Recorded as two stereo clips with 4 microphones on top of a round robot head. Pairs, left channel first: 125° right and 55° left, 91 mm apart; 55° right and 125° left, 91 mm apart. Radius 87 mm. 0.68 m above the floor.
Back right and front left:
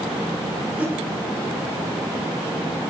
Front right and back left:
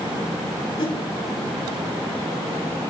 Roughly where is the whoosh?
Ahead.